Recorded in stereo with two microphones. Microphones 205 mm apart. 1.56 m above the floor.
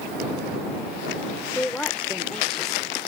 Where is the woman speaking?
5° left (ahead or behind); by 3.0 s centre (ahead or behind).